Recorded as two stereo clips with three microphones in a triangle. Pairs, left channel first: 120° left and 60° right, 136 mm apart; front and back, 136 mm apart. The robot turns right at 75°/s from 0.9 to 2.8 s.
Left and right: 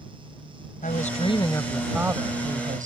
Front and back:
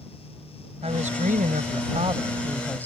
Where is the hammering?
No hammering in this recording.